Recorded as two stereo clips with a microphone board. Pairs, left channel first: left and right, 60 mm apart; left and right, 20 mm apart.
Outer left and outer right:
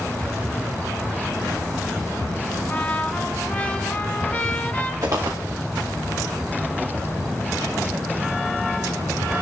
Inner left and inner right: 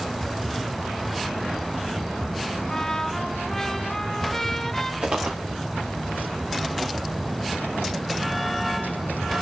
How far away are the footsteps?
About 2.0 m.